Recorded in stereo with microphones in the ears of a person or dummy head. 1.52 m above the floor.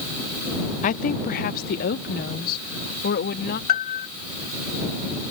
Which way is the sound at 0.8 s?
45° left (ahead or behind).